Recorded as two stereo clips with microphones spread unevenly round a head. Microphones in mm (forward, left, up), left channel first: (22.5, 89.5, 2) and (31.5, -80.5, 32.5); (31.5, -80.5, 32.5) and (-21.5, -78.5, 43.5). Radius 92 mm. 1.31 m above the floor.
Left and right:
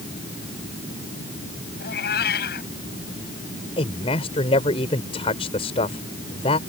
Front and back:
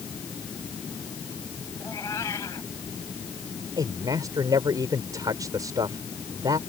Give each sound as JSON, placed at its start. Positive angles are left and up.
{"t": 1.8, "sound": "a cat meowing", "azimuth_deg": 65}
{"t": 3.8, "sound": "a man speaking", "azimuth_deg": 155}